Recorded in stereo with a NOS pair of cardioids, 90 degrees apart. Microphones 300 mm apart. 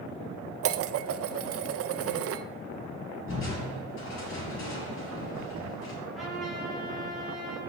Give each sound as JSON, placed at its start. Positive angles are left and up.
{"t": 0.6, "sound": "dishes clattering", "azimuth_deg": -55, "distance_m": 0.6}
{"t": 3.3, "sound": "crushing", "azimuth_deg": 45, "distance_m": 4.0}
{"t": 6.1, "sound": "a trumpet", "azimuth_deg": 0, "distance_m": 4.5}